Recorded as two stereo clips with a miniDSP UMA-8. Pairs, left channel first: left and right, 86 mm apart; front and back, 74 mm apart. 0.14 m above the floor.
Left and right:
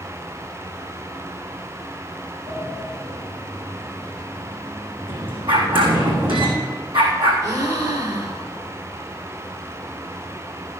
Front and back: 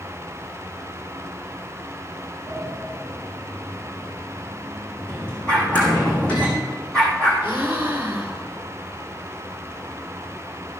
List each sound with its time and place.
2.5 s a sliding door: 75° right, 4.5 m
5.5 s a dog barking: 80° right, 4 m
7.4 s a gasp: 115° right, 1.9 m